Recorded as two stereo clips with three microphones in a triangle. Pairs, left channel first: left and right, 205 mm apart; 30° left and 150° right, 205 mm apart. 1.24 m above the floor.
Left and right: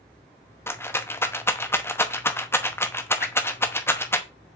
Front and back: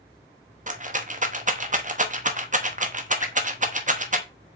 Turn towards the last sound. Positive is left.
turn(degrees=70)